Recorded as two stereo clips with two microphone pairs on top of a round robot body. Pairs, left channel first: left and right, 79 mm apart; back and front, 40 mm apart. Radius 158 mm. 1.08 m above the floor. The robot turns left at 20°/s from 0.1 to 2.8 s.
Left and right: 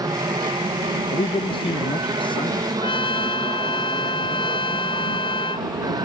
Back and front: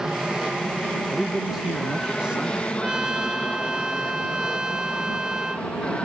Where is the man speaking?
95° left; by 2.7 s 60° left.